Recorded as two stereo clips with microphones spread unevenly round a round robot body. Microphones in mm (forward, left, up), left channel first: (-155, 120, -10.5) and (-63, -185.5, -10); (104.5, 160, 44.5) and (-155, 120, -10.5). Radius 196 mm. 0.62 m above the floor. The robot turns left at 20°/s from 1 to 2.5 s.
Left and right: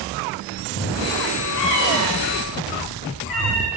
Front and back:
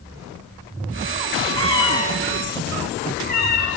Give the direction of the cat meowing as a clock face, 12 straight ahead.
9 o'clock.